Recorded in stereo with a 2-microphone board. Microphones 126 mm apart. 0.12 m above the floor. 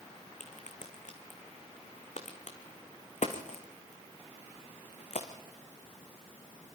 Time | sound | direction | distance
0.4 | a crack | 70° left (ahead or behind) | 2.5 m